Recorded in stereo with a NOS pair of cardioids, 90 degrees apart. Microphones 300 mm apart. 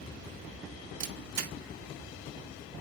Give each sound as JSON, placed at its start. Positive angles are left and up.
{"t": 1.0, "sound": "a camera shutter", "azimuth_deg": -60, "distance_m": 1.4}